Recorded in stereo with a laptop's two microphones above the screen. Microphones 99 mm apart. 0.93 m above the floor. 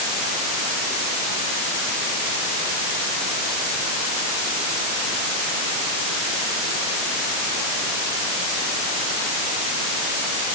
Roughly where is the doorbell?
I don't hear a doorbell.